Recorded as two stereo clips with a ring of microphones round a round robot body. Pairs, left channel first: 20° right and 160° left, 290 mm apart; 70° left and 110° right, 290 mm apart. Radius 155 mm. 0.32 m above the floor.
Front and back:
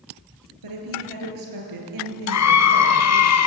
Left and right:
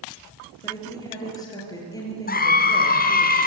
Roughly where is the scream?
Ahead.